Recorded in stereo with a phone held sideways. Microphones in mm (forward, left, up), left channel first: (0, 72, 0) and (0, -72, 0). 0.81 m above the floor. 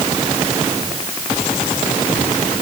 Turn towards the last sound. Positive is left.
No sound to turn to.